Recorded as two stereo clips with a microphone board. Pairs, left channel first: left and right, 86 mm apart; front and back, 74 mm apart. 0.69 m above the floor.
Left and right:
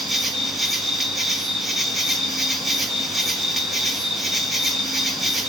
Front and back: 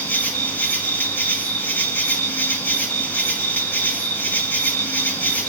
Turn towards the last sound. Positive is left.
turn(degrees=0)